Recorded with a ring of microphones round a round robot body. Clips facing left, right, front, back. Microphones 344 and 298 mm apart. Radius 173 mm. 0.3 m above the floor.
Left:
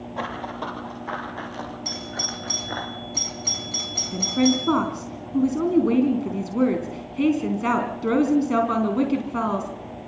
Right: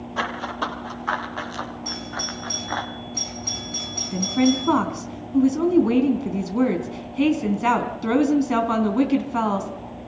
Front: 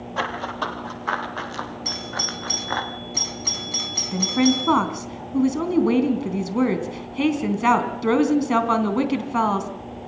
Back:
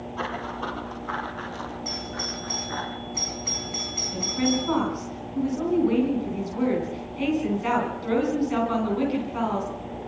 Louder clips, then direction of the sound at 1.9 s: Right 1 dB, front 1 dB; 20° left.